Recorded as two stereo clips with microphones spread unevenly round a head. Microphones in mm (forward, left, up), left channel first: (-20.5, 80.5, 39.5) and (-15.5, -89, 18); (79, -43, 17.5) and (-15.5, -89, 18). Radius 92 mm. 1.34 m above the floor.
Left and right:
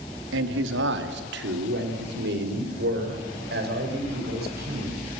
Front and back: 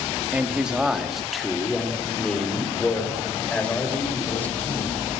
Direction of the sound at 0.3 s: 80° right.